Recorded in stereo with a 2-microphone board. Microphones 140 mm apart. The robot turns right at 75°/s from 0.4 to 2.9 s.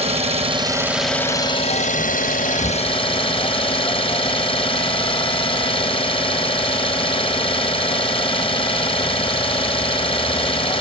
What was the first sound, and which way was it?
An engine running, 50° right.